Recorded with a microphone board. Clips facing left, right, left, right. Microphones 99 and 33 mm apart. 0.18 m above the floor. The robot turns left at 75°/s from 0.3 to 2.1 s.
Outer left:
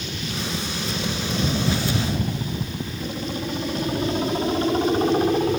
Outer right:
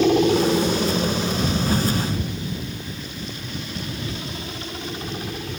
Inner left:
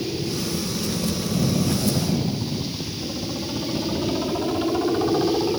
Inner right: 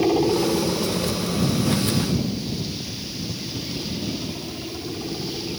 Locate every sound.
0.0 s a helicopter: 70° right (ahead or behind); by 5.6 s 45° left (ahead or behind)